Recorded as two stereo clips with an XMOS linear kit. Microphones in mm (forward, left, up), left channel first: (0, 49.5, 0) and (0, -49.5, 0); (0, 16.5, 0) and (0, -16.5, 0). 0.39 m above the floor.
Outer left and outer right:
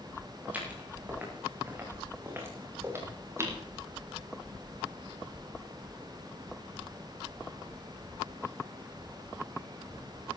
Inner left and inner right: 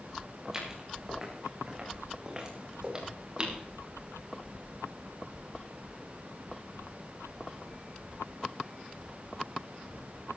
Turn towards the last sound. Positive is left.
turn(degrees=-30)  # may be behind; listen again after turning